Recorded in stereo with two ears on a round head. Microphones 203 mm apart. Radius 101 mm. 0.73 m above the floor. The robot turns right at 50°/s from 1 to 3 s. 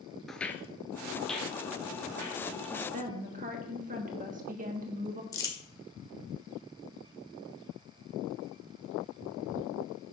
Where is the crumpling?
15° left (ahead or behind), 1.3 m.